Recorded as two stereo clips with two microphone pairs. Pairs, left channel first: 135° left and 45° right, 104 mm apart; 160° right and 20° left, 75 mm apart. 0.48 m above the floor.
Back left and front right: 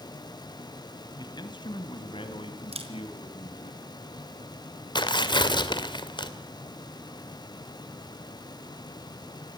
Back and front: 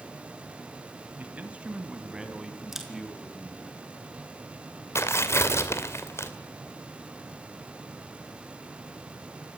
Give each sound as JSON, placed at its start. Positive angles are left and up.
{"t": 1.2, "sound": "a man speaking", "azimuth_deg": 90, "distance_m": 3.0}
{"t": 2.7, "sound": "a camera shutter", "azimuth_deg": -65, "distance_m": 4.0}
{"t": 5.0, "sound": "tearing paper", "azimuth_deg": 160, "distance_m": 2.0}